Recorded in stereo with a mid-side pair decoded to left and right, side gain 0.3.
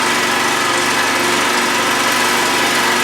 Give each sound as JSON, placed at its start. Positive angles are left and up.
{"t": 0.0, "sound": "an engine running", "azimuth_deg": -15, "distance_m": 1.9}